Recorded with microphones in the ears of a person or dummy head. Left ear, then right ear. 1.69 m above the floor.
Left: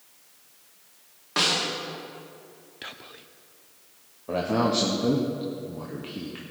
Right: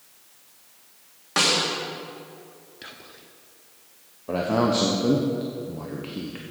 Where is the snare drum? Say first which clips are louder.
Right 3 dB; 10° right (ahead or behind), 1.8 m.